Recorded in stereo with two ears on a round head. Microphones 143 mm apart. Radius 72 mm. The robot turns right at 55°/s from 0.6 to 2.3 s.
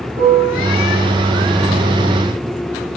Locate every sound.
0.2 s a piano: 65° right (ahead or behind), 2.0 m